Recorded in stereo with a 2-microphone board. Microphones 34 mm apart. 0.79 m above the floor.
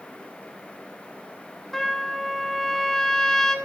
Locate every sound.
1.7 s a trumpet: 10° left (ahead or behind), 2 m